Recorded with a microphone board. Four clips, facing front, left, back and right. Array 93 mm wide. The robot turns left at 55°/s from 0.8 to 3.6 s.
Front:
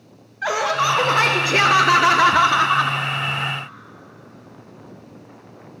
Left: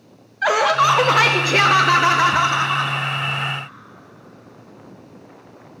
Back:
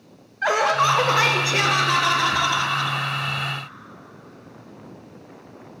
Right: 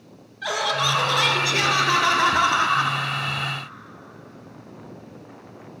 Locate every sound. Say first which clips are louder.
0.4 s laughter: left 9 dB, back 1 dB; 100° left, 0.5 m; by 3.0 s 20° right, 0.5 m